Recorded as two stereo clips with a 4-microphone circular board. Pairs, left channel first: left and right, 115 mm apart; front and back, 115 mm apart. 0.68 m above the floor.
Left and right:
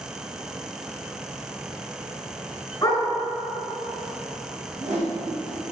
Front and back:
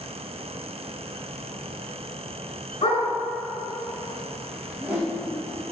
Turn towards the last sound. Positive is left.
turn(degrees=-100)